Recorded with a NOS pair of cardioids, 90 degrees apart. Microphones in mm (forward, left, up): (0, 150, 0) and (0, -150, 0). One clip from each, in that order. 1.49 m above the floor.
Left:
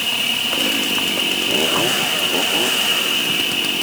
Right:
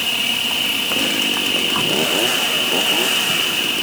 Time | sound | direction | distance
0.0 | an insect | straight ahead | ?